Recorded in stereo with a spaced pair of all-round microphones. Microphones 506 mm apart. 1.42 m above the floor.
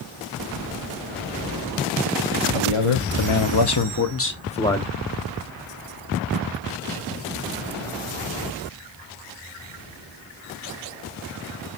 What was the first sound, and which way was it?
A man speaking, 75° left (ahead or behind).